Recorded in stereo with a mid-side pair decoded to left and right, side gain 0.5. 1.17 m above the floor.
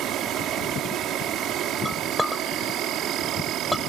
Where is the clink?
5° left.